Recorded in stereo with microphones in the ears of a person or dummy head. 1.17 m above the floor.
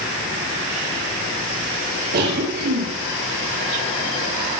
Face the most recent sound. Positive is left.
turn(degrees=-55)  # may be behind; listen again after turning